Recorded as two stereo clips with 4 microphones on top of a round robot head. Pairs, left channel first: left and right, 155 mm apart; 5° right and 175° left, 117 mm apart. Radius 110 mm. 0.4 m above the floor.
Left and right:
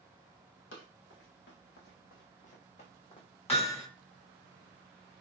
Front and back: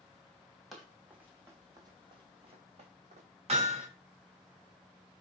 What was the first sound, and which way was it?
Running footsteps, 85° left.